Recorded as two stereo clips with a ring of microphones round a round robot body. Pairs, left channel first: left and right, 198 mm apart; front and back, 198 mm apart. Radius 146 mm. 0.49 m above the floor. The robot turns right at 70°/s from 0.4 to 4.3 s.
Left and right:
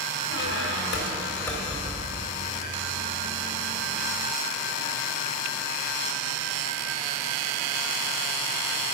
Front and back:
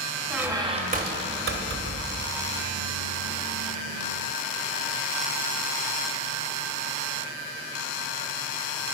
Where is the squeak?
95° left, 1.9 m; by 2.5 s 120° right, 1.9 m.